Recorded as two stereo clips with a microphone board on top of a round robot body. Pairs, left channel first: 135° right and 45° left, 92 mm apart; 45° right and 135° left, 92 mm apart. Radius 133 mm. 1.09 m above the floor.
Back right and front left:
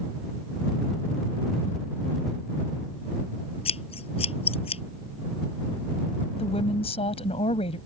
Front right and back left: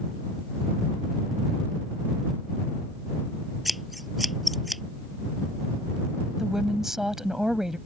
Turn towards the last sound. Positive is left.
turn(degrees=-140)